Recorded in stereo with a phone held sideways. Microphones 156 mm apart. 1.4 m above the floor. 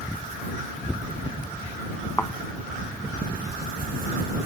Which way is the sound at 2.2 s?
10° left (ahead or behind).